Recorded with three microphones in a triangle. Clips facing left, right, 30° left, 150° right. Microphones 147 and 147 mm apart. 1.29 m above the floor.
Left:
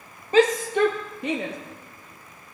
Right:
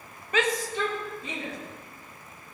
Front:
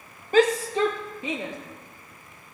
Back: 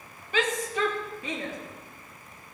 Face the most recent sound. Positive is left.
turn(degrees=100)